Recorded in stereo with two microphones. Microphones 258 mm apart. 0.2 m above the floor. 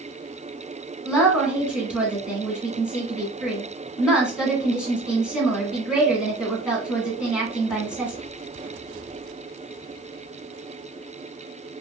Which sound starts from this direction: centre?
A woman speaking, at 1.1 s.